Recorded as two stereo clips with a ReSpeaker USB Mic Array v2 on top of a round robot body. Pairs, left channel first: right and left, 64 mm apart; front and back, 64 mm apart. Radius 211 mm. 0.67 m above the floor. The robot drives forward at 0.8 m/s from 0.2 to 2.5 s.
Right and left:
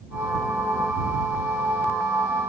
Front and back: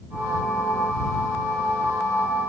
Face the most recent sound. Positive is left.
No sound to turn to.